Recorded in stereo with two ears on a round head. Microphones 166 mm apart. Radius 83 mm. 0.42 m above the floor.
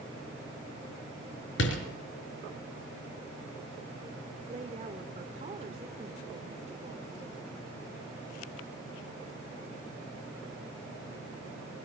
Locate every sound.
1.6 s a door slam: 70° left (ahead or behind), 5.5 m
4.5 s a woman speaking: 35° right (ahead or behind), 1.3 m